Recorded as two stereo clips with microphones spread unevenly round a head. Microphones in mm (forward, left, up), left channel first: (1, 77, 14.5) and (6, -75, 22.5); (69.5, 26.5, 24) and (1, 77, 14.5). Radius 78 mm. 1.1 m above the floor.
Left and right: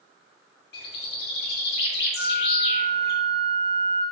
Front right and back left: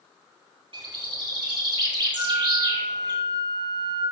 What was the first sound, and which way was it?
A bird, 120° left.